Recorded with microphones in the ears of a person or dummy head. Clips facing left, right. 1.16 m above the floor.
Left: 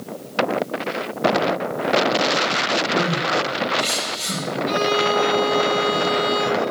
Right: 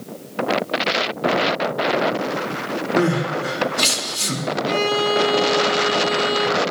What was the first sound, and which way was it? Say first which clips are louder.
Crying: right 3 dB; 90° right.